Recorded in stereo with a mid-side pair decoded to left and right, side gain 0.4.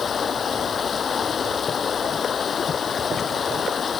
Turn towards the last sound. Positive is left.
turn(degrees=50)